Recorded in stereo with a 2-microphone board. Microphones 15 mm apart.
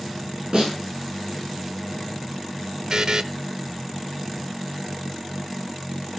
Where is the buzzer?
50° right (ahead or behind), 0.6 m.